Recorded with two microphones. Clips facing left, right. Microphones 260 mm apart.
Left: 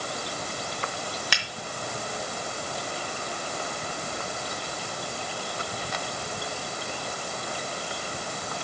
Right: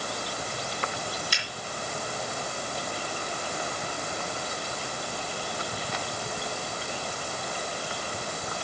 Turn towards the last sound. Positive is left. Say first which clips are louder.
# left 2 dB
turn(degrees=80)